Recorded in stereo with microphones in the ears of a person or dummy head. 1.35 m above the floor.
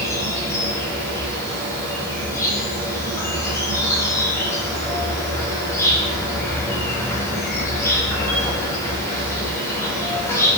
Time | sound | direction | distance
0.0 | an insect | 15° left (ahead or behind) | 6 m